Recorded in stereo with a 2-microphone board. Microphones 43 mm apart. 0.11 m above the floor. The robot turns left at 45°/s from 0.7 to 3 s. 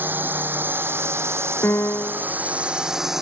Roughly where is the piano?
Left.